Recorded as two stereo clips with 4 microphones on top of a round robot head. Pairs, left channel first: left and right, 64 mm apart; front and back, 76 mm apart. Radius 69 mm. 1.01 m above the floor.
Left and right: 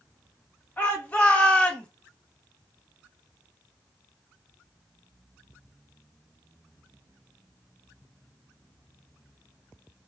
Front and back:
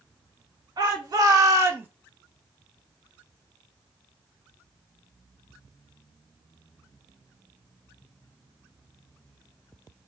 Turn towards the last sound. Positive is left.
turn(degrees=145)